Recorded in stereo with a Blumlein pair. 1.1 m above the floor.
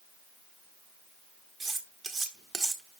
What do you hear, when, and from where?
1.6 s cutlery clinking: 5° right, 1.2 m